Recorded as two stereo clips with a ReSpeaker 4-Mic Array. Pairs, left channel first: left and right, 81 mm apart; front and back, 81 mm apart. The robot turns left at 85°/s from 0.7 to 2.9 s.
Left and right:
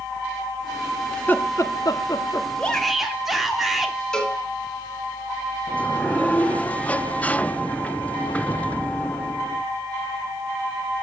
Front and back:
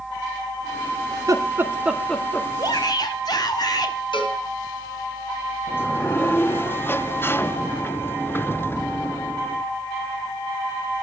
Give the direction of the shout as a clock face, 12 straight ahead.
11 o'clock.